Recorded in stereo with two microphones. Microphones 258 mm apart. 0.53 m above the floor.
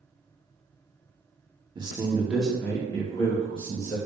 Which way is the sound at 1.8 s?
20° right (ahead or behind).